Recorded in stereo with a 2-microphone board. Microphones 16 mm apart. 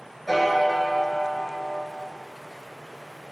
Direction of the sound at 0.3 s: Centre (ahead or behind).